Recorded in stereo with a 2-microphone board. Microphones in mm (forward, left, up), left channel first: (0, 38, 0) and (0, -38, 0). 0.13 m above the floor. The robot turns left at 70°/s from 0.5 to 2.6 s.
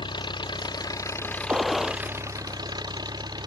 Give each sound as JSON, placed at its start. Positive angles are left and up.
{"t": 0.0, "sound": "an engine running", "azimuth_deg": 85}
{"t": 1.5, "sound": "a gunshot", "azimuth_deg": -165}